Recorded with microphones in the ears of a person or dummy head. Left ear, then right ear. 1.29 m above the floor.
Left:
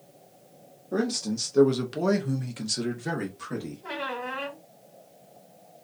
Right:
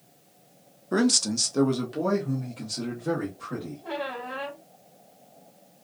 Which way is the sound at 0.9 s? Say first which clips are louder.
Right 5 dB; 40° right (ahead or behind).